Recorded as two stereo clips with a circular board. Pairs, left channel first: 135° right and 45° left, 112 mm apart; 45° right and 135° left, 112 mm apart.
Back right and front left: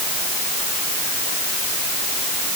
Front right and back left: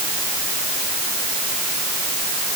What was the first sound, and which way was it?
Only background noise.